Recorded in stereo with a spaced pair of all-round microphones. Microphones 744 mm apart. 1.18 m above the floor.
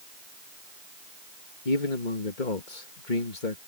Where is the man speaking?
80° left.